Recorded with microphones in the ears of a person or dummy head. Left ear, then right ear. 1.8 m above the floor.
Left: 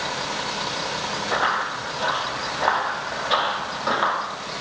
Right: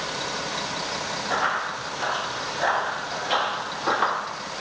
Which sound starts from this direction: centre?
Running footsteps, at 1.3 s.